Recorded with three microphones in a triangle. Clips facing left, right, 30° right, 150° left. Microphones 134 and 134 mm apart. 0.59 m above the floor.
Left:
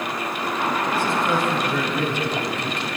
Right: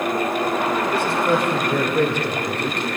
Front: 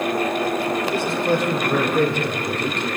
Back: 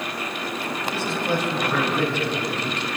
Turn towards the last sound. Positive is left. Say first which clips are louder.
# right 2 dB, front 2 dB
turn(degrees=-70)